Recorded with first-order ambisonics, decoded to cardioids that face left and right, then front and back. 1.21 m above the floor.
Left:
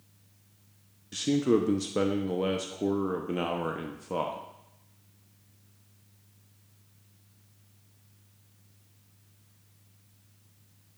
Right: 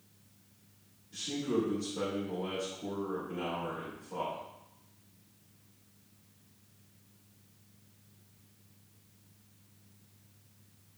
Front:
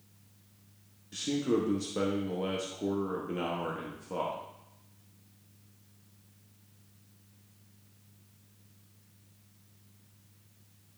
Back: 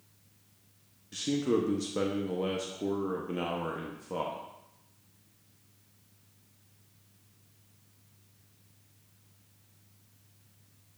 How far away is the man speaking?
About 0.6 m.